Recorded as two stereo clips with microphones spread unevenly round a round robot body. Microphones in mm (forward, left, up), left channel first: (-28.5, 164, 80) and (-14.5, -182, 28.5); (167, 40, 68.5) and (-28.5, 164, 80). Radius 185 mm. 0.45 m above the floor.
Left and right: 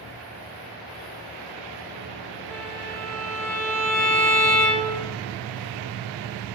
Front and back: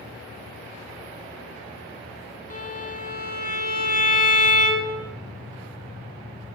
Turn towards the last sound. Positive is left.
turn(degrees=5)